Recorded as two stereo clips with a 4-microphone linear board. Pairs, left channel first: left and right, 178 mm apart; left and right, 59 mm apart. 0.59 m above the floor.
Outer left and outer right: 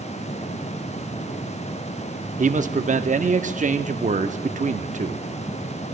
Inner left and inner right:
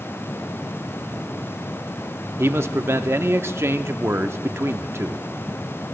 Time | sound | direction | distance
2.4 | a man speaking | 40° right (ahead or behind) | 0.7 m